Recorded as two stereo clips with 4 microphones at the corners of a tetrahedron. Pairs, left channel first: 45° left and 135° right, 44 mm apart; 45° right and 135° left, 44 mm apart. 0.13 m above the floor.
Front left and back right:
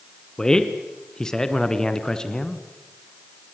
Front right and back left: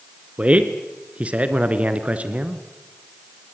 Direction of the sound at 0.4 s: 105° left.